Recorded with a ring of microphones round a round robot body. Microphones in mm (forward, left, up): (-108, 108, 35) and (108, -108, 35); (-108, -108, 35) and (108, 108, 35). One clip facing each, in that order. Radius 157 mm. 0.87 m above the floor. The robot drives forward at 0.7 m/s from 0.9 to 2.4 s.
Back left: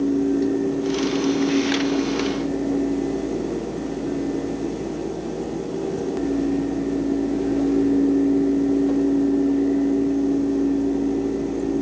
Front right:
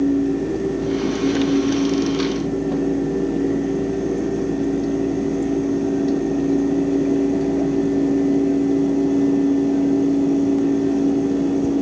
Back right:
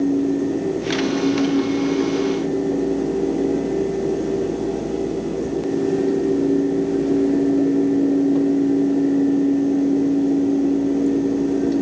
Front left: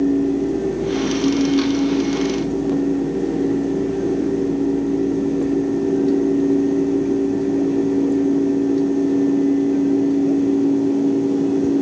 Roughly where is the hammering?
No hammering in this recording.